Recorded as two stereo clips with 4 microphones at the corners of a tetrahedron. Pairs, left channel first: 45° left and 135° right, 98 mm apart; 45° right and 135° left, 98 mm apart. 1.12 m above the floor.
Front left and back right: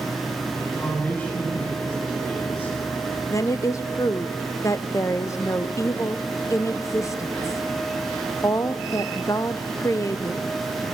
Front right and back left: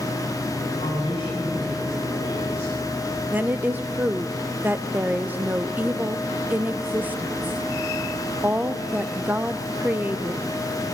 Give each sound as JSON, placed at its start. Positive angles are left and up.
{"t": 0.6, "sound": "a man speaking", "azimuth_deg": -25, "distance_m": 9.0}
{"t": 3.3, "sound": "a woman speaking", "azimuth_deg": 80, "distance_m": 0.6}